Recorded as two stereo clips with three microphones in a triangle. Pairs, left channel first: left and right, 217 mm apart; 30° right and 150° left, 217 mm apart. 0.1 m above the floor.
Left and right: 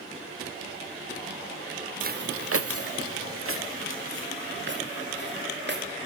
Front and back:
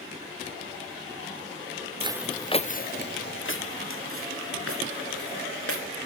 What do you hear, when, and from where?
2.0 s footsteps: 145° right, 0.7 m; by 5.9 s 45° right, 4 m